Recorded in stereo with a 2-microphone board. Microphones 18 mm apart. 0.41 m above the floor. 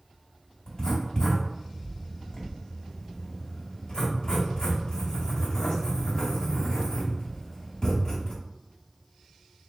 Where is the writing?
45° left (ahead or behind), 2 m.